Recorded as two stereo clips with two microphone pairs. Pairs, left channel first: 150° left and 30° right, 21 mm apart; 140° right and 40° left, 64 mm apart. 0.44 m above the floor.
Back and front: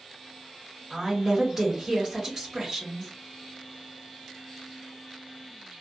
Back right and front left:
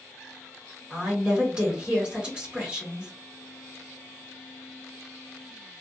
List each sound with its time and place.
0.9 s a woman speaking: 20° right, 1.4 m